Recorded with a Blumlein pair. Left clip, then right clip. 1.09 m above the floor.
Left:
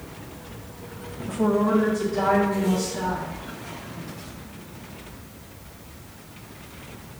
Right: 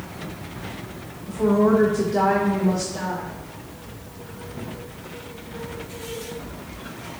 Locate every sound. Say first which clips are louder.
1.3 s a woman speaking: right 3 dB; 25° left, 0.5 m; by 3.3 s 75° right, 1.8 m